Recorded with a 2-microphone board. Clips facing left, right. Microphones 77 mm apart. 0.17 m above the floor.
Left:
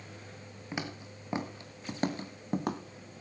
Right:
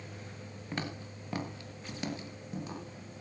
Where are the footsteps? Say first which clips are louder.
Even; 10° left (ahead or behind), 3 m; by 2.8 s 65° left (ahead or behind), 2.5 m.